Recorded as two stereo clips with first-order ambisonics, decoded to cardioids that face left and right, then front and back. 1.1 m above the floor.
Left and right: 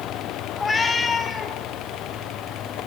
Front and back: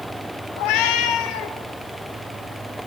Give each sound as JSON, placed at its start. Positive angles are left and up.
{"t": 0.6, "sound": "a cat meowing", "azimuth_deg": 15, "distance_m": 1.0}